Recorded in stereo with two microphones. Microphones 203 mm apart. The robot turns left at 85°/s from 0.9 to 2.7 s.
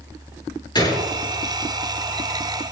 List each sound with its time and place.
0.8 s a gunshot: 20° left (ahead or behind), 4 m; by 1.1 s 35° left (ahead or behind), 4 m